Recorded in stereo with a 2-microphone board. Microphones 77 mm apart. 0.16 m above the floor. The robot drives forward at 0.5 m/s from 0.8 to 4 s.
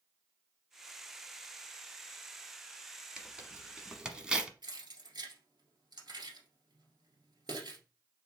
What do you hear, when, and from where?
3.2 s tearing paper: 10° right (ahead or behind), 1.2 m
4.6 s keys jangling: 65° right (ahead or behind), 1.8 m